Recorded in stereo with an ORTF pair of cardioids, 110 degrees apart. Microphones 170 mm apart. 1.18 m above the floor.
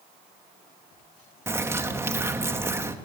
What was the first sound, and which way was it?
A bird, 15° right.